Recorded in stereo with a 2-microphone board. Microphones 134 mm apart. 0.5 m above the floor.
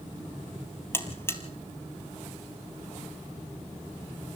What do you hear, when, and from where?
0.9 s a buzzer: 20° left (ahead or behind), 2 m